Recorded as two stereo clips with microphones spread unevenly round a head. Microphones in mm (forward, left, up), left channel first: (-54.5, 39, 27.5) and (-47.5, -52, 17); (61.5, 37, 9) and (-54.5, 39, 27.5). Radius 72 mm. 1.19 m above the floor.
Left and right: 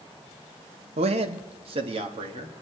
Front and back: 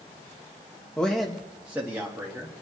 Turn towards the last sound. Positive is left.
turn(degrees=-105)